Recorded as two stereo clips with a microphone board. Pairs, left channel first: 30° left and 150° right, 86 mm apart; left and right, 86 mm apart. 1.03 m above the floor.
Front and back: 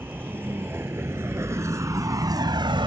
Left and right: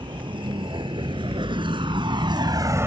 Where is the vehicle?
85° right; by 2.9 s 150° right.